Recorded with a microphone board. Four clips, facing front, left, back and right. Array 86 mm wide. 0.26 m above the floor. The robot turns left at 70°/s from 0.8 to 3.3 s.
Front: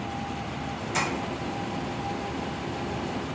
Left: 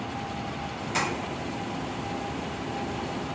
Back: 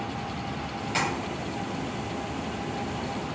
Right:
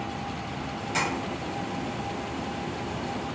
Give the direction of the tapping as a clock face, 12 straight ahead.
6 o'clock.